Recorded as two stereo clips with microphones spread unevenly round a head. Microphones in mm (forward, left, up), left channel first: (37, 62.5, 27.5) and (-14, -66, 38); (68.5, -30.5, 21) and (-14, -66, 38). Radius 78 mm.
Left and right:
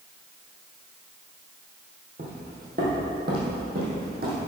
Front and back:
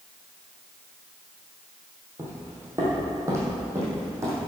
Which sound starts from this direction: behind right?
Footsteps, at 2.2 s.